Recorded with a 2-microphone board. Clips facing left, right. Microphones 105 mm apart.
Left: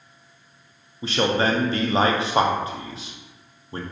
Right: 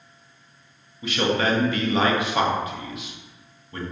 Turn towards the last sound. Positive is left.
turn(degrees=30)  # may be behind; listen again after turning